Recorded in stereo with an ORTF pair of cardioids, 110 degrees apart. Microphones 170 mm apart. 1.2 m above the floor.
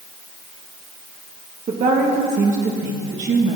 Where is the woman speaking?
50° right, 1.7 m.